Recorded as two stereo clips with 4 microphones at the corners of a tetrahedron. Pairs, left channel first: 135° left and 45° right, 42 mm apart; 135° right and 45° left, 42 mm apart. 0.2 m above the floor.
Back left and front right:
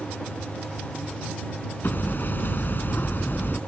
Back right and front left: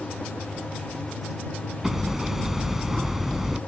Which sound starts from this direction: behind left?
Hammering, at 1.8 s.